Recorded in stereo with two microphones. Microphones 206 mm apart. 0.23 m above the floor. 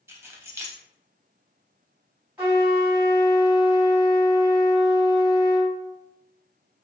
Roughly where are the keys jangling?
Centre.